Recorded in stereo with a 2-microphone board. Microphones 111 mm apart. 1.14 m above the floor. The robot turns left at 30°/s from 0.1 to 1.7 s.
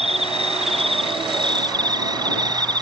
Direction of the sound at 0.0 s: 90° right.